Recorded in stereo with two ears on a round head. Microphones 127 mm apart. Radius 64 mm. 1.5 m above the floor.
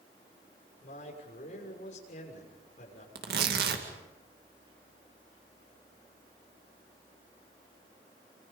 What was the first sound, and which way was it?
A man speaking, 55° left (ahead or behind).